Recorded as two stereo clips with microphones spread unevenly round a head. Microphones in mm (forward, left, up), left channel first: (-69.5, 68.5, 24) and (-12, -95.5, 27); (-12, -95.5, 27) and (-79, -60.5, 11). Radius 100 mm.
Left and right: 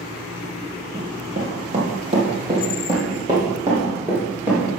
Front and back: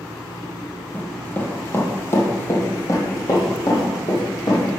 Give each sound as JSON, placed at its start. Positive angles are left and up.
{"t": 0.9, "sound": "running footsteps", "azimuth_deg": -70, "distance_m": 2.0}